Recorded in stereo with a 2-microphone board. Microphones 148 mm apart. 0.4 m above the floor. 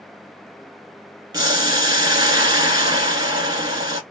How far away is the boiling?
About 0.8 m.